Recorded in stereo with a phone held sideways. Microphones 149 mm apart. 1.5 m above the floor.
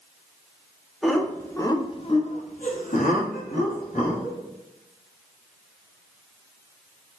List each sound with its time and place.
1.0 s laughter: centre (ahead or behind), 0.8 m; by 4.4 s 85° left, 1.6 m